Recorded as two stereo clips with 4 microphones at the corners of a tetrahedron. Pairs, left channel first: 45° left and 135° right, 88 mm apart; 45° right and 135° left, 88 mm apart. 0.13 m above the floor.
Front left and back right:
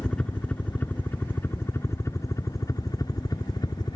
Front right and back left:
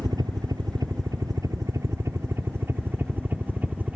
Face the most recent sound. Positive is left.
turn(degrees=65)